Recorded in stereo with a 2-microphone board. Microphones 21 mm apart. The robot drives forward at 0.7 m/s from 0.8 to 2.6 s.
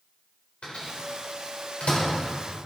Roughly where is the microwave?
Left.